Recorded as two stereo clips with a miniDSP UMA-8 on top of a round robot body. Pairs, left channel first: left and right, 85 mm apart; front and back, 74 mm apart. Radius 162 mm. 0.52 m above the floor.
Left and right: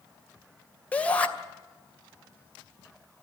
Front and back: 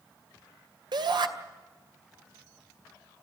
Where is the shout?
165° left, 2.5 m.